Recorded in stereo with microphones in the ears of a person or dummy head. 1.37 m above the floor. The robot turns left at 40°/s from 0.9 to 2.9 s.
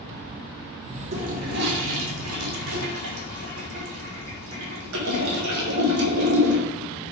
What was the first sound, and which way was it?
A toilet flushing, 40° right (ahead or behind).